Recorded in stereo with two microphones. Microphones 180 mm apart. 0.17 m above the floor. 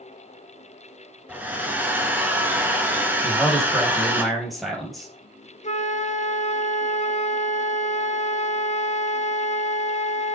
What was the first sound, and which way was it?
A hair dryer, 10° right (ahead or behind).